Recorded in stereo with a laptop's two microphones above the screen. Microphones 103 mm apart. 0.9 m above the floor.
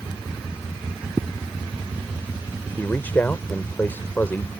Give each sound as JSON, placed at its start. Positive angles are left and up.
{"t": 1.1, "sound": "footsteps", "side_deg": -15}
{"t": 2.8, "sound": "a man speaking", "side_deg": 20}